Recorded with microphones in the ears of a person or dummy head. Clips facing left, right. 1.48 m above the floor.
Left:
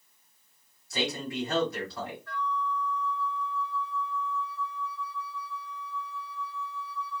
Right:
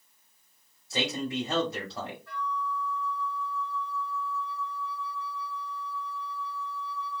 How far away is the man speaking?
About 1.4 m.